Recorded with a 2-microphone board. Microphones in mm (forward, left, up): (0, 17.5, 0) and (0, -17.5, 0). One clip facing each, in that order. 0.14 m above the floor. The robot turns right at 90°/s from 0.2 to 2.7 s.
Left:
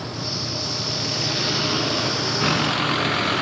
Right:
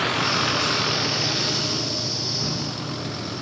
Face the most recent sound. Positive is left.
turn(degrees=65)  # may be behind; listen again after turning